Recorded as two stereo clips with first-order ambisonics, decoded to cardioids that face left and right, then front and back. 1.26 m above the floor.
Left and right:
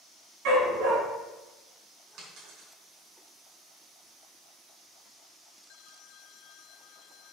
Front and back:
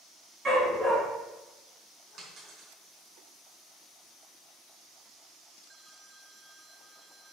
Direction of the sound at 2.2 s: 125° right.